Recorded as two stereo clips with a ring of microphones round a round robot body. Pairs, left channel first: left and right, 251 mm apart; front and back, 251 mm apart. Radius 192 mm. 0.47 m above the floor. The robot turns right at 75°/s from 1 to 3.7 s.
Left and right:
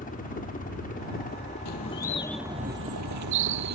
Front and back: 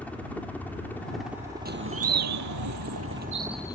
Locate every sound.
0.0 s a helicopter: 80° left; by 3.8 s 90° right
1.6 s a bird: 125° left; by 3.8 s 80° right